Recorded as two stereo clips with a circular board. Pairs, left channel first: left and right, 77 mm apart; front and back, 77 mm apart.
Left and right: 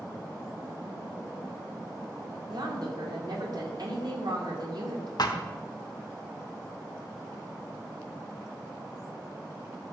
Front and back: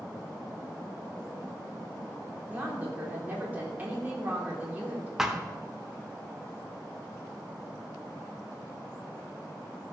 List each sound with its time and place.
2.5 s a woman speaking: 110° right, 3.5 m
5.2 s a thud: 95° left, 1.2 m